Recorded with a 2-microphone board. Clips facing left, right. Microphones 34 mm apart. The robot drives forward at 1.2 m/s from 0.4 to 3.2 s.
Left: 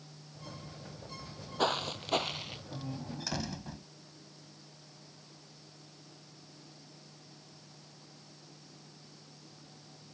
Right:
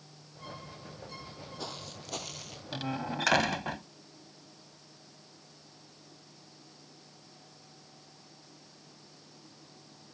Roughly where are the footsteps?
Left.